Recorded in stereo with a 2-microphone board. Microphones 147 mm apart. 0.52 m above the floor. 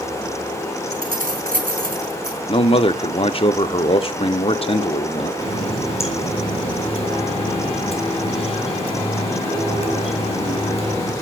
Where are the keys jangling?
80° right, 3.5 m.